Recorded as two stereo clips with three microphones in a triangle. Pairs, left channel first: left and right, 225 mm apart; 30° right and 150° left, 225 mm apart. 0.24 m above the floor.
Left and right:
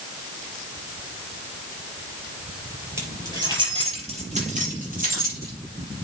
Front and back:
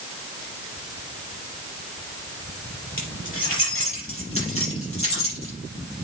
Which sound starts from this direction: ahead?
Keys jangling, at 3.0 s.